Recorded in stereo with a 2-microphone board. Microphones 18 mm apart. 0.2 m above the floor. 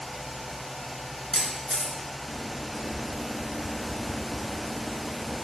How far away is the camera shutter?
About 2.5 m.